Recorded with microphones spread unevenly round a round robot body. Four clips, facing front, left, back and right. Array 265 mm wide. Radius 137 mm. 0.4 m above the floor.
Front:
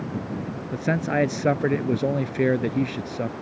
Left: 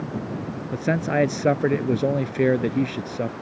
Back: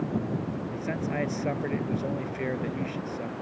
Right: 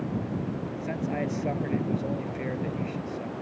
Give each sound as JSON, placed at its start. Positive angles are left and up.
{"t": 0.7, "sound": "a man speaking", "azimuth_deg": 55}